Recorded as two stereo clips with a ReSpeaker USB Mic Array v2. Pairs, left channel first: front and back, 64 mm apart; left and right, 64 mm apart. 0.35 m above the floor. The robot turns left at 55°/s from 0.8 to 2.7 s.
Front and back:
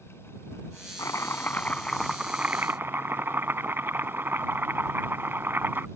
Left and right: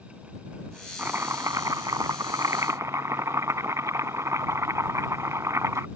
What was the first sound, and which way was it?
Chopping, 30° right.